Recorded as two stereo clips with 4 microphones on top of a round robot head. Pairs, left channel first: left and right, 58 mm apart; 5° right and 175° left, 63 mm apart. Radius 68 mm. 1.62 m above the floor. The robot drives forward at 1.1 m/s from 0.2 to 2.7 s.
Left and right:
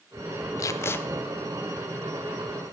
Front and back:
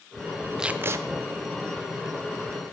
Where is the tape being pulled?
95° left, 0.6 m; by 1.0 s 140° left, 0.8 m.